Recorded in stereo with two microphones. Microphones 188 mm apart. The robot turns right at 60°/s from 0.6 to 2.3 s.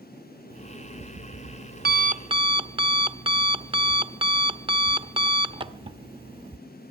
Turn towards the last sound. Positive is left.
turn(degrees=-25)